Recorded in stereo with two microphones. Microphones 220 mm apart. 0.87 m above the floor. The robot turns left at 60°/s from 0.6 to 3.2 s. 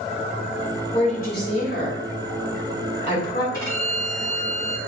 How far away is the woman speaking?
About 3 m.